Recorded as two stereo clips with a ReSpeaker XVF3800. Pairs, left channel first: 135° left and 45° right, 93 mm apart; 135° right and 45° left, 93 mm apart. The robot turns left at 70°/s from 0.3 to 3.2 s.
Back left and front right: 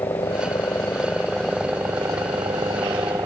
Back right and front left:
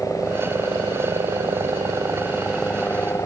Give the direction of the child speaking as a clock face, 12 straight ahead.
I don't hear a child speaking.